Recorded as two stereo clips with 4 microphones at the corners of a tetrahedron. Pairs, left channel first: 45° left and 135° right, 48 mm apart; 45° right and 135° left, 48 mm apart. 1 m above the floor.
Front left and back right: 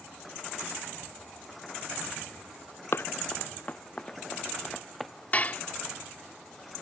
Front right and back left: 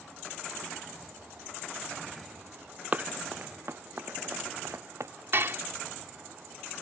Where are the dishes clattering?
100° left.